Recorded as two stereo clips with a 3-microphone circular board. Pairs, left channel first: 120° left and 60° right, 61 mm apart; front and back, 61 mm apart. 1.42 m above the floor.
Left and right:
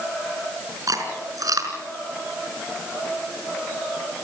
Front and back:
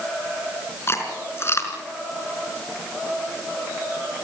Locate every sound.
0.9 s chewing: 45° right, 4.5 m